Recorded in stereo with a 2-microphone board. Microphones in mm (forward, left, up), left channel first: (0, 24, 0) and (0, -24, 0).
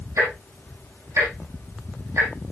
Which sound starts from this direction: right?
Ticking, at 0.2 s.